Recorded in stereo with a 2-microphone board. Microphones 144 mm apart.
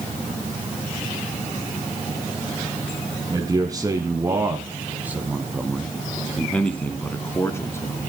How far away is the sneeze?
I don't hear a sneeze.